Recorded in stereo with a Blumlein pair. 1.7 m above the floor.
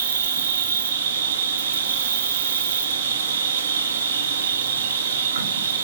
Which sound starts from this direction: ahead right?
An insect, at 0.0 s.